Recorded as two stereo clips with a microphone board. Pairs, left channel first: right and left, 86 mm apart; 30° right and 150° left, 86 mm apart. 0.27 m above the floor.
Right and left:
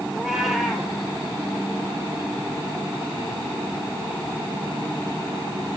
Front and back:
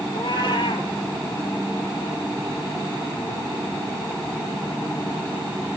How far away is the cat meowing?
About 2 m.